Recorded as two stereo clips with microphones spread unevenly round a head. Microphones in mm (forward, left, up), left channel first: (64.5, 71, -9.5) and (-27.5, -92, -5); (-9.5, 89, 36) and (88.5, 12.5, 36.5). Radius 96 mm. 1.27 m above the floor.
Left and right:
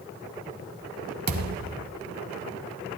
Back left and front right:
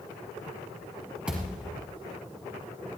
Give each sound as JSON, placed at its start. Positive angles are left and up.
{"t": 1.3, "sound": "a thud", "azimuth_deg": -120, "distance_m": 1.8}